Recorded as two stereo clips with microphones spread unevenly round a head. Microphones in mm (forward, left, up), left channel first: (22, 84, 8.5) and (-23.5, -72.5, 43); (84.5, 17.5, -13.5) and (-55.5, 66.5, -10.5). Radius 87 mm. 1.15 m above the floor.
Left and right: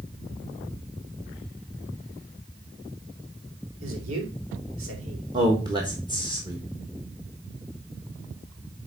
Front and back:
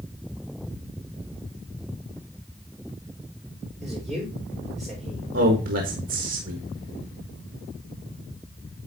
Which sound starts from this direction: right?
A man speaking, at 3.8 s.